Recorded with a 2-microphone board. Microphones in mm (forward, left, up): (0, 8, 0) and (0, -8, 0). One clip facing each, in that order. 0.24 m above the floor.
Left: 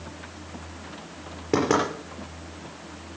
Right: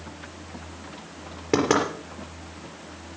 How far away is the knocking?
About 4.5 m.